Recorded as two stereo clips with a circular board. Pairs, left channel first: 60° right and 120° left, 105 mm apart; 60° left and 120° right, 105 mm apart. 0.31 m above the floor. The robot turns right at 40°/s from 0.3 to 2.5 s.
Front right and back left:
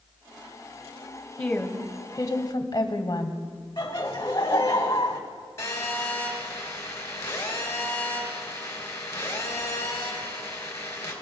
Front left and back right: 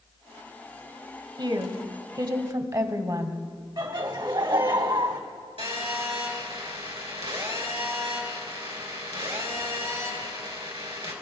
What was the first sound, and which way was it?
A woman speaking, 140° right.